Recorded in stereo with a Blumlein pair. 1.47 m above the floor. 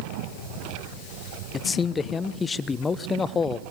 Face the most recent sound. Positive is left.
turn(degrees=20)